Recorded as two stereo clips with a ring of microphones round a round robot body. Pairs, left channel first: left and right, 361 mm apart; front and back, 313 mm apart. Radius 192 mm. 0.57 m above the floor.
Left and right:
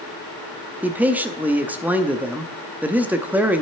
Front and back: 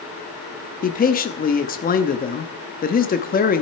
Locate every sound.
0.8 s a man speaking: 10° right, 0.7 m